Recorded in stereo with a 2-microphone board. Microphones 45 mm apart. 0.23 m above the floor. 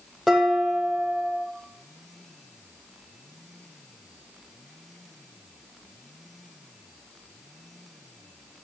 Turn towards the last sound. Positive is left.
turn(degrees=0)  # may be behind; listen again after turning